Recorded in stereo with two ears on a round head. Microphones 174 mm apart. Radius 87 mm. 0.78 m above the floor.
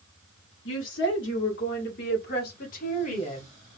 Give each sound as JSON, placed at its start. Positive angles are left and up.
{"t": 0.7, "sound": "a woman speaking", "side_deg": 70, "distance_m": 2.5}